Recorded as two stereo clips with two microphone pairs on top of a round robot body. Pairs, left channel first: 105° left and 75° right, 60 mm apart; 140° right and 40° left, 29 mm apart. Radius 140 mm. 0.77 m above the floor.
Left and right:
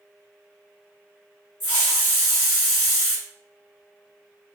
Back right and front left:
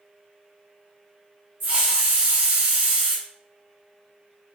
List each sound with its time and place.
1.6 s a hiss: 45° left, 1.7 m